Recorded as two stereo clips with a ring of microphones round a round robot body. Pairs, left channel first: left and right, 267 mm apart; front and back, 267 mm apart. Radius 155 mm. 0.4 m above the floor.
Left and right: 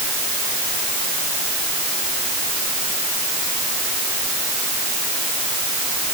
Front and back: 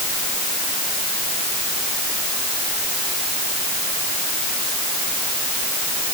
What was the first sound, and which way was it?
Only background noise.